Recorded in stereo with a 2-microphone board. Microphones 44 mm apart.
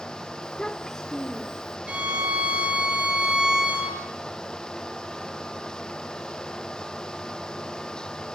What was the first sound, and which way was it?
A child speaking, 30° left (ahead or behind).